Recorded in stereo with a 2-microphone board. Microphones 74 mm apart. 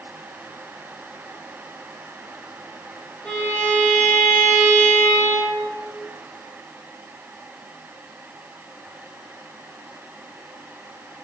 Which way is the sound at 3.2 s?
15° left (ahead or behind).